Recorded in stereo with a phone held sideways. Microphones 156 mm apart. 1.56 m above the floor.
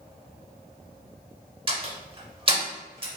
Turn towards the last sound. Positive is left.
turn(degrees=-35)  # may be behind; listen again after turning